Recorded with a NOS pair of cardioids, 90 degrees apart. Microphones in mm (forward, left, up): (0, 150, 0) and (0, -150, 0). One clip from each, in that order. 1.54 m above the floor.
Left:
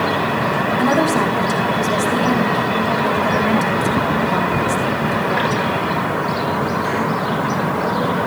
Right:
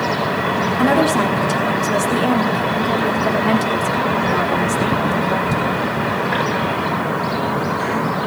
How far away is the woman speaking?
About 4 m.